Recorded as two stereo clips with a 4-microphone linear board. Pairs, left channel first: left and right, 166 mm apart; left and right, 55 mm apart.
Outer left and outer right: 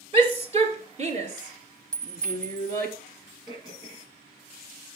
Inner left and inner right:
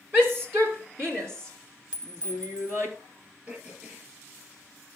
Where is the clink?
25° right (ahead or behind), 0.7 m.